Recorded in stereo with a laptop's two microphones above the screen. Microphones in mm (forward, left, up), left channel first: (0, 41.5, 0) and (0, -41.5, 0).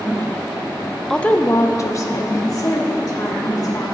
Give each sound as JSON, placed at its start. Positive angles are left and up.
{"t": 1.1, "sound": "a woman speaking", "side_deg": 5, "distance_m": 0.5}